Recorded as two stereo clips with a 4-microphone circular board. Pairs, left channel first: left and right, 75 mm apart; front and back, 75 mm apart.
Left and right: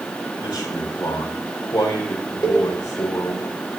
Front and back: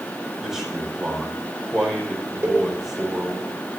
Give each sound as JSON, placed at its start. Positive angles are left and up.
{"t": 0.4, "sound": "a man speaking", "azimuth_deg": 95, "distance_m": 4.5}
{"t": 2.4, "sound": "a cowbell", "azimuth_deg": 125, "distance_m": 1.8}